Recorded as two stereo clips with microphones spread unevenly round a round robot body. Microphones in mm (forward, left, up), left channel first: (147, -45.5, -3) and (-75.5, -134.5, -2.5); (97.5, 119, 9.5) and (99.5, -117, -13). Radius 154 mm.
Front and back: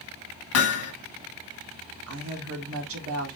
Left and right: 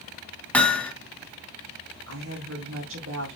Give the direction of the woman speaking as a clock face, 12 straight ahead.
4 o'clock.